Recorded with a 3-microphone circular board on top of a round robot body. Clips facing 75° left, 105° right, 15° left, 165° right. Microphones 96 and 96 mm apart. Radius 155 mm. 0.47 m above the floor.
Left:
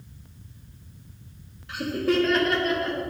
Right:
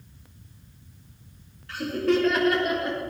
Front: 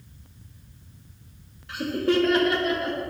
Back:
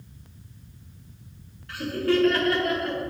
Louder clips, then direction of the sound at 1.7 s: Right 1 dB, front 1 dB; 40° left.